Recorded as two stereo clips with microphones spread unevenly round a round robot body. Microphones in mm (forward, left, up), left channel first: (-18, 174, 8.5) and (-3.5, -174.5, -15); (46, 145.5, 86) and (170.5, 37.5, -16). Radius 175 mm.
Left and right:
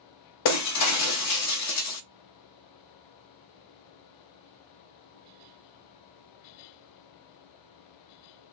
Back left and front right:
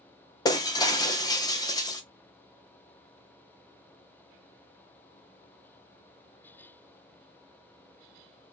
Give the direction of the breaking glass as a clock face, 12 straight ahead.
8 o'clock.